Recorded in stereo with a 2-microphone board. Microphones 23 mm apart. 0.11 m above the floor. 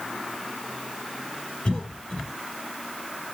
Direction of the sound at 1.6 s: 60° left (ahead or behind).